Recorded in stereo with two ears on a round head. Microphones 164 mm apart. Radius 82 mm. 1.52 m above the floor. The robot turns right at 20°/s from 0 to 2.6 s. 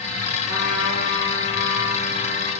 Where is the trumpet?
75° left, 4.5 m; by 2.5 s 115° left, 4.5 m.